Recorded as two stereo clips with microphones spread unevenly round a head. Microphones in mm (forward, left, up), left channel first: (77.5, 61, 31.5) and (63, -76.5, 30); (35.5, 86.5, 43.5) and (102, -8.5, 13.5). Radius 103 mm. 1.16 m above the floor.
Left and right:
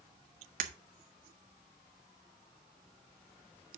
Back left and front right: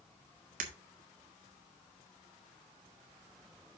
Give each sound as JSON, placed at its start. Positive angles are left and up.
{"t": 0.6, "sound": "breaking glass", "azimuth_deg": -75, "distance_m": 1.5}